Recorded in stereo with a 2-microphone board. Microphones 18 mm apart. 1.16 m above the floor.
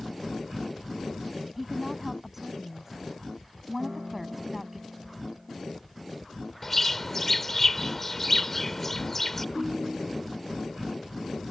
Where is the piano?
90° right.